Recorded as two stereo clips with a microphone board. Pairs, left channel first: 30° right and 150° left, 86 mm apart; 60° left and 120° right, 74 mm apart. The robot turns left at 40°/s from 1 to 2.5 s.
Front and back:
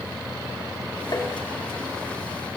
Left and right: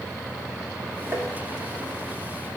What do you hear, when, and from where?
1.1 s tapping: 75° right, 1.9 m; by 1.3 s 80° right, 1.9 m